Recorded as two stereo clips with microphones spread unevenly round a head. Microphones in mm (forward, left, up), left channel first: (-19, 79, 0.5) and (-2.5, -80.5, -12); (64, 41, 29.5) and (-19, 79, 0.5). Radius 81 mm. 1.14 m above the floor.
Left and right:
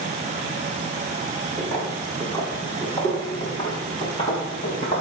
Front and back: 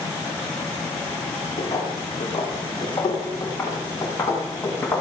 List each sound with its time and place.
1.6 s footsteps: 15° left, 4.5 m; by 5.0 s 40° left, 6 m